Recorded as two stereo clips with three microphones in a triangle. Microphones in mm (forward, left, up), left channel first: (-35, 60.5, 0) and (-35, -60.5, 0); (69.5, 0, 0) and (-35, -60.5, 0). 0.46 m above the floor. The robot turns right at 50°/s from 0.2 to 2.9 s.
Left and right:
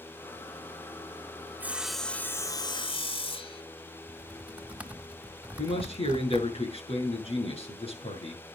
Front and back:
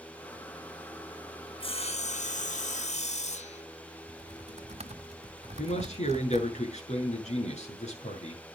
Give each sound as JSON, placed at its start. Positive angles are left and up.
{"t": 1.6, "sound": "sawing", "azimuth_deg": -15, "distance_m": 0.7}
{"t": 4.1, "sound": "typing on a keyboard", "azimuth_deg": -170, "distance_m": 1.6}
{"t": 5.6, "sound": "a man speaking", "azimuth_deg": 50, "distance_m": 6.0}